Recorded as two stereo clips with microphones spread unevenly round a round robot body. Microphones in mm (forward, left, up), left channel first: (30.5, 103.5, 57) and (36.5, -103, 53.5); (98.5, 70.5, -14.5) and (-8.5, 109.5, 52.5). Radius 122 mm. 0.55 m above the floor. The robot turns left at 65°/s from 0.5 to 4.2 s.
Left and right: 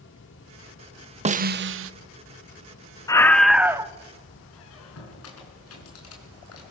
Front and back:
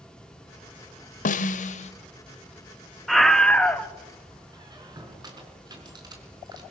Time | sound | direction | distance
1.2 | a snare drum | 30° right | 0.7 m
3.1 | a scream | 25° left | 1.2 m
4.5 | a squeak | 105° left | 4.5 m